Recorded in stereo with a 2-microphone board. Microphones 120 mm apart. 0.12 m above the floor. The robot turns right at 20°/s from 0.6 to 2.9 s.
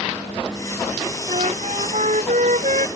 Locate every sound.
1.3 s a flute: 120° right; by 2.9 s 85° right